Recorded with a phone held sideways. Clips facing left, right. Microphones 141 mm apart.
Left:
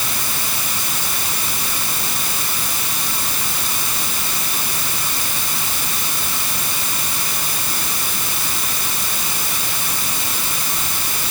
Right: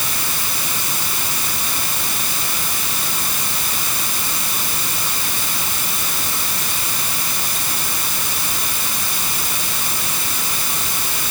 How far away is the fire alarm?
No fire alarm in this recording.